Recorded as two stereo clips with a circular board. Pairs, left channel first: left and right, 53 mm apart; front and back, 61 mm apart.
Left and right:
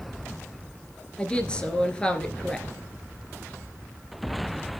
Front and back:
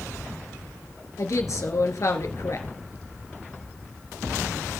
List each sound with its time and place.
1.2 s a woman speaking: 25° left, 2.5 m